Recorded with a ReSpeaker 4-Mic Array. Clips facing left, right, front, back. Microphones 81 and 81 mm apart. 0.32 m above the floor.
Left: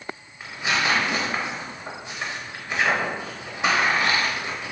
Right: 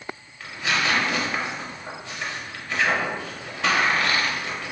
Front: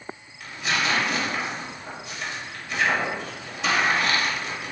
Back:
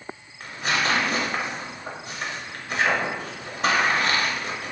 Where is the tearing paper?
155° left, 0.6 m.